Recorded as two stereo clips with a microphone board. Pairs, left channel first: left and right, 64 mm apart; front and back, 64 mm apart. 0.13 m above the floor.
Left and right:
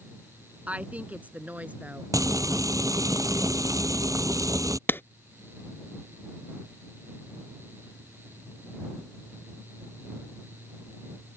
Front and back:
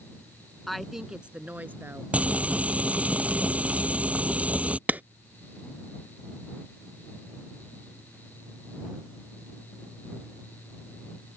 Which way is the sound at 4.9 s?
130° left.